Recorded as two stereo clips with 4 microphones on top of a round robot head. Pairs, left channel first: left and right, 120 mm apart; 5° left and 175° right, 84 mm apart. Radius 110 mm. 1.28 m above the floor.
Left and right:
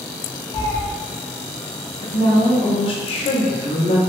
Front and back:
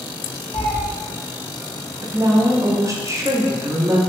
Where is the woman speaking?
130° left, 0.7 m.